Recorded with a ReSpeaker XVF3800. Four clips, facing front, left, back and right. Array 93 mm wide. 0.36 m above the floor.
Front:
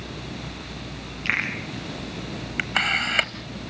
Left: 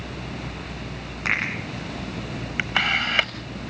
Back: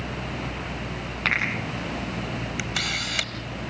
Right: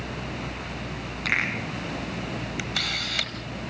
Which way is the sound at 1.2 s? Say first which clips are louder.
Left 2 dB, back 2 dB; 160° left.